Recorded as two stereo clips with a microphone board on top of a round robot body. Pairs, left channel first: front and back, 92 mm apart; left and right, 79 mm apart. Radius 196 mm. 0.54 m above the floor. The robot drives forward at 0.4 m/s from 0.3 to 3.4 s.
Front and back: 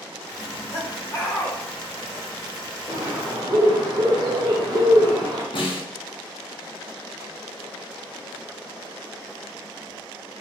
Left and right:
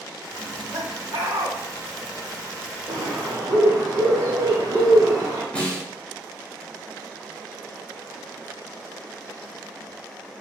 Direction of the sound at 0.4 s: 50° right.